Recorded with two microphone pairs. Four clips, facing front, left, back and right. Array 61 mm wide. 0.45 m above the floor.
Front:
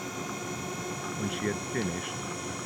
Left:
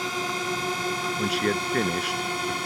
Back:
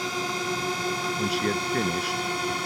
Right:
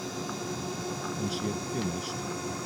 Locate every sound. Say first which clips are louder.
0.0 s a drone: left 7 dB, back 7 dB; 130° left; by 2.7 s 140° left
1.2 s a man speaking: left 8 dB, back 3 dB; 95° left